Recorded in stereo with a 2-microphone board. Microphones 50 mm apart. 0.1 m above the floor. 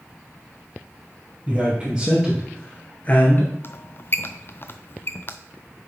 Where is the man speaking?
25° right (ahead or behind), 2.5 m; by 3.5 s 45° left (ahead or behind), 1.8 m.